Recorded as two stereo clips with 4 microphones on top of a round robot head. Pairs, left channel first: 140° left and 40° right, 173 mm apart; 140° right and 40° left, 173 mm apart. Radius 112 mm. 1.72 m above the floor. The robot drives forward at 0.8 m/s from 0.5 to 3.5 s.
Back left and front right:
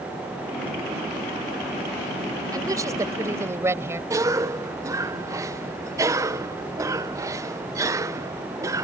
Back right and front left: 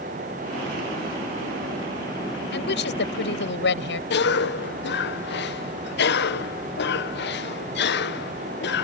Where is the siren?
I don't hear a siren.